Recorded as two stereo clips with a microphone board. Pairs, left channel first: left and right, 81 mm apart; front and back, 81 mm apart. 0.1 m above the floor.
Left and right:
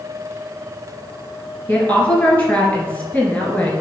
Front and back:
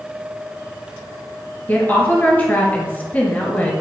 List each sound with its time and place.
1.7 s a woman speaking: 40° left, 1.4 m